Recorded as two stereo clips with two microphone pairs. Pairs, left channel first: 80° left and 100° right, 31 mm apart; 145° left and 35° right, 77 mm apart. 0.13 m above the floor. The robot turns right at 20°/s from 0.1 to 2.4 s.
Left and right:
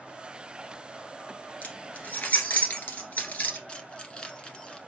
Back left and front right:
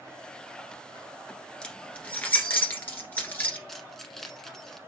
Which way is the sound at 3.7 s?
70° left.